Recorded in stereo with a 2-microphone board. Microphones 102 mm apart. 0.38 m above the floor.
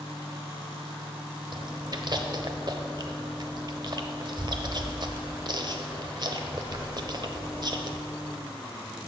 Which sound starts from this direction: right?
Chewing, at 1.5 s.